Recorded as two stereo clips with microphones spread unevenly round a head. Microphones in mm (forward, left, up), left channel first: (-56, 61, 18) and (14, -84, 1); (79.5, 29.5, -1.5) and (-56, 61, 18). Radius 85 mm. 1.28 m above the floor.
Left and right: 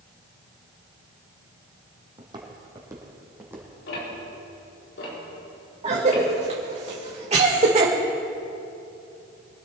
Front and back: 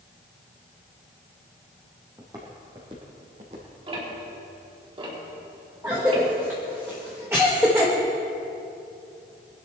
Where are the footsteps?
125° right, 2.5 m; by 4.2 s 150° right, 4 m.